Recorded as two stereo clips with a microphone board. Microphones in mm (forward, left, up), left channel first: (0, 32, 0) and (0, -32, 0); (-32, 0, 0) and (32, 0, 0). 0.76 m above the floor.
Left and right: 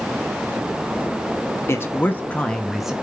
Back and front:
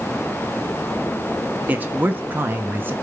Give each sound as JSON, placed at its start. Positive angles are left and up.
{"t": 1.7, "sound": "a man speaking", "azimuth_deg": 55, "distance_m": 1.4}